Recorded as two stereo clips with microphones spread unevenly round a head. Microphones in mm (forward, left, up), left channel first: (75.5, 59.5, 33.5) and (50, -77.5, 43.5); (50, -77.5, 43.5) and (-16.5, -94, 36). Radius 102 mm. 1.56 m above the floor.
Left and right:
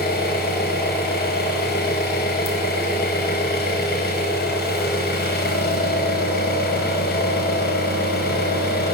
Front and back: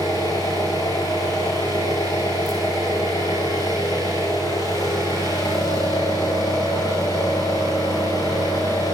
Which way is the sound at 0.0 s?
80° left.